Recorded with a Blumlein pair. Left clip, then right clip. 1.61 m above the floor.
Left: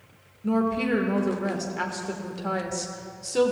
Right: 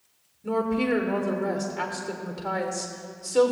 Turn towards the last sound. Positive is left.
turn(degrees=5)